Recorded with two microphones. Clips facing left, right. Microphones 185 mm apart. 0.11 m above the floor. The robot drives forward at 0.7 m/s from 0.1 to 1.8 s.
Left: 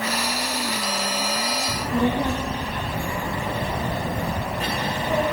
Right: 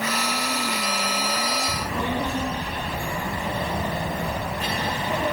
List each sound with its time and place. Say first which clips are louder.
1.7 s a child speaking: left 5 dB; 40° left (ahead or behind), 4.5 m